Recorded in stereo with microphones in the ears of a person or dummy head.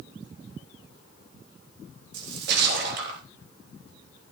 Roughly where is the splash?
Right.